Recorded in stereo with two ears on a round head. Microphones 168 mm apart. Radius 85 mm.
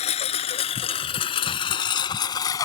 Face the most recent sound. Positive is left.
turn(degrees=20)  # may be behind; listen again after turning